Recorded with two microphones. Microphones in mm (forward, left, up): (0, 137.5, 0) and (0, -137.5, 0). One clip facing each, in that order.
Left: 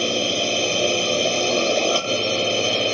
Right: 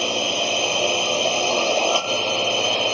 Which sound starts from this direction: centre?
A drone, at 0.0 s.